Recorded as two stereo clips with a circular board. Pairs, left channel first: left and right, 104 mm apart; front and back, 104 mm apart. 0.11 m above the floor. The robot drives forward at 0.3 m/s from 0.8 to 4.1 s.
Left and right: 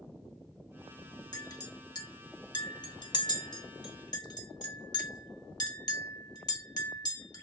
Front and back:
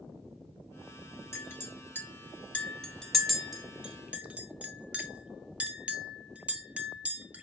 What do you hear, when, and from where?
1.3 s a clink: 55° left, 1.4 m; by 7.4 s 105° left, 1.3 m